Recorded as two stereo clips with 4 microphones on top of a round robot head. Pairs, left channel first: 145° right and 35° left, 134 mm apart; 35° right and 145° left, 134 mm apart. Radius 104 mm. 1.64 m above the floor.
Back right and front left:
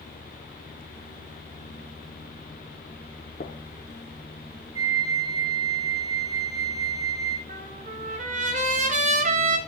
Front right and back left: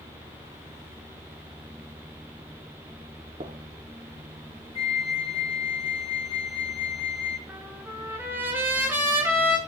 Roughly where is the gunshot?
Behind.